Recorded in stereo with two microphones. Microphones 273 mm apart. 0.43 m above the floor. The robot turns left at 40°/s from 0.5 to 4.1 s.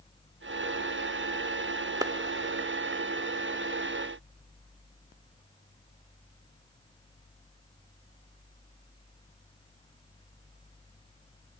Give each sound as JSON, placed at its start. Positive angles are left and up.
{"t": 2.0, "sound": "a clap", "side_deg": -15, "distance_m": 1.1}